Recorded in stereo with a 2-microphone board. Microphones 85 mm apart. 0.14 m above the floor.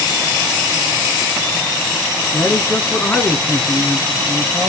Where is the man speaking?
30° left (ahead or behind), 1.4 m; by 4.7 s 5° left (ahead or behind), 2.5 m.